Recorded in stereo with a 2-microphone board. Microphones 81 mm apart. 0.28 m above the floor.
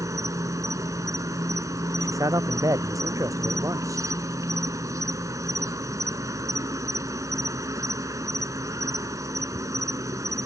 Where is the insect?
45° right (ahead or behind).